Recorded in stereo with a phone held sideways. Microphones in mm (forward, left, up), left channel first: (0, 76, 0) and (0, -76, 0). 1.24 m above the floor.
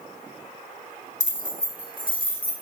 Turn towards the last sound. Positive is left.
turn(degrees=70)  # may be behind; listen again after turning